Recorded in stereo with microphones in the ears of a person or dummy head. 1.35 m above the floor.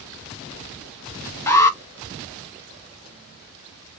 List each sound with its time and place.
1.5 s an alarm: 15° left (ahead or behind), 0.9 m